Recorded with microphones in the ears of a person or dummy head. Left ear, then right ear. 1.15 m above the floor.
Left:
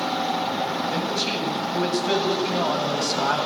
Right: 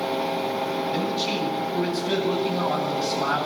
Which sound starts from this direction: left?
A man speaking, at 0.9 s.